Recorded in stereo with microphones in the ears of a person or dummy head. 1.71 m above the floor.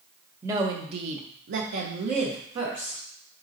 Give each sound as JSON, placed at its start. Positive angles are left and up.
{"t": 0.4, "sound": "a woman speaking", "side_deg": -15, "distance_m": 0.7}